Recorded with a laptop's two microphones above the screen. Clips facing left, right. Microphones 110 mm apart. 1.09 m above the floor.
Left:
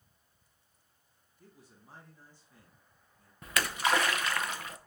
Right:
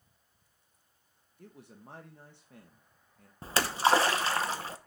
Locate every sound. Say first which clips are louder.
1.4 s a man speaking: right 7 dB; 70° right (ahead or behind), 1.0 m
3.4 s a splash: right 4 dB; 30° right (ahead or behind), 0.8 m